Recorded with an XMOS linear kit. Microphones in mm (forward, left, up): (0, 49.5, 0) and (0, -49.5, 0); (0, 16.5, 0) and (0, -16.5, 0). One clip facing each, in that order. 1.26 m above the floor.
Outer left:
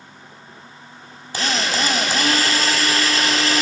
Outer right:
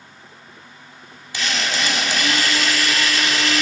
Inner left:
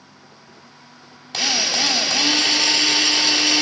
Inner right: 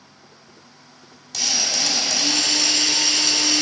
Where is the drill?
40° left (ahead or behind), 1.1 m.